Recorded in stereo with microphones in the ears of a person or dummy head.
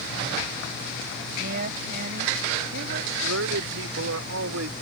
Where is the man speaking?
85° right.